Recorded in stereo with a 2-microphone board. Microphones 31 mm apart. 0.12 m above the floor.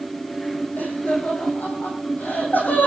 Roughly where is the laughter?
Left.